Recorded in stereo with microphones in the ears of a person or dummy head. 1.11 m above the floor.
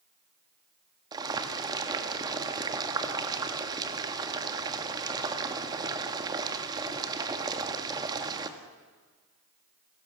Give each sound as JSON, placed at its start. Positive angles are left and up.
{"t": 1.1, "sound": "boiling", "side_deg": -20, "distance_m": 1.9}